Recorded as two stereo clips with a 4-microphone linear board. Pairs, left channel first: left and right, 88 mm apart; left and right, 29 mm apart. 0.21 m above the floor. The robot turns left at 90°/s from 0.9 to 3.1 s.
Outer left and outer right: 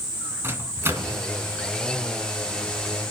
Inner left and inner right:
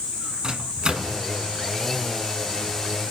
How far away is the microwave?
About 1.8 m.